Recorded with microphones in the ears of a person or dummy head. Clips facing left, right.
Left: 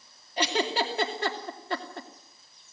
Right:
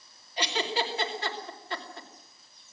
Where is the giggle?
40° left (ahead or behind), 2.5 m.